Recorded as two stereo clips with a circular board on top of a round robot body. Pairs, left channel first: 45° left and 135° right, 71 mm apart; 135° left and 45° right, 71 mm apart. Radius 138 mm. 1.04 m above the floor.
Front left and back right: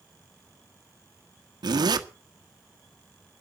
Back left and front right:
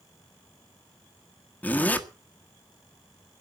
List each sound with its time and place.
1.6 s a zipper: 155° right, 1.4 m